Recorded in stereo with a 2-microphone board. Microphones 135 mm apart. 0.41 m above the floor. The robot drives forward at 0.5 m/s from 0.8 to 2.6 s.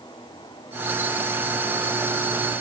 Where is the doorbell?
No doorbell in this recording.